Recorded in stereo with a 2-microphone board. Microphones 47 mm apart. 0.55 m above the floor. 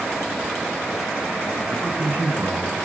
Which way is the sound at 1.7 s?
45° right (ahead or behind).